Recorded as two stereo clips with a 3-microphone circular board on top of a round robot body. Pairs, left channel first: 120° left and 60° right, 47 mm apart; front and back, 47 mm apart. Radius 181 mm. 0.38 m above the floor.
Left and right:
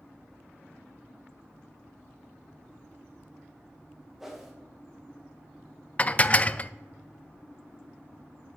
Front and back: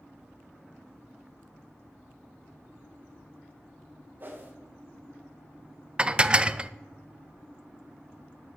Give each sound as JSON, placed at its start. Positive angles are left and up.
{"t": 4.2, "sound": "a whoosh", "azimuth_deg": -140, "distance_m": 2.0}
{"t": 6.0, "sound": "dishes clattering", "azimuth_deg": 140, "distance_m": 0.6}